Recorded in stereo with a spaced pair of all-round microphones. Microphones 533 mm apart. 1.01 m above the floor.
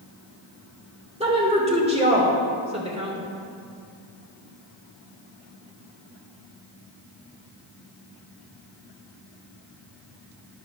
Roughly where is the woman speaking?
Centre.